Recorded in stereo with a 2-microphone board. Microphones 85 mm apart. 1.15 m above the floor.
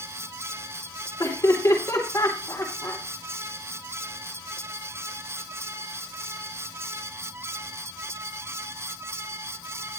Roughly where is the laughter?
Left.